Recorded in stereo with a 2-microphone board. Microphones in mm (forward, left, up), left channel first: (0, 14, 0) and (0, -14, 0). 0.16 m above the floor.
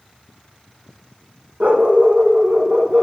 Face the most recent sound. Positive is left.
turn(degrees=-50)  # may be behind; listen again after turning